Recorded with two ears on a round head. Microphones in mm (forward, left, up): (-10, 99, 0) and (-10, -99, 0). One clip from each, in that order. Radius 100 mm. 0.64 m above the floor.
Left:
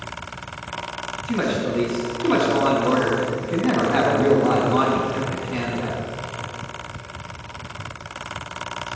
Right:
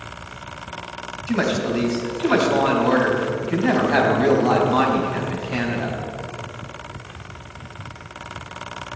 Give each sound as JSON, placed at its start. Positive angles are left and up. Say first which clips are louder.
{"t": 1.3, "sound": "a woman speaking", "louder": "right 2 dB", "side_deg": -55, "distance_m": 3.5}